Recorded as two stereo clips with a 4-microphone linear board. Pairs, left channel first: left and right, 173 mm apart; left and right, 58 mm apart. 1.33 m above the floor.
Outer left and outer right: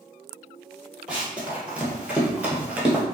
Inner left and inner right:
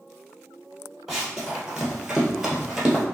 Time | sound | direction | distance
1.1 | running footsteps | 5° right (ahead or behind) | 1.6 m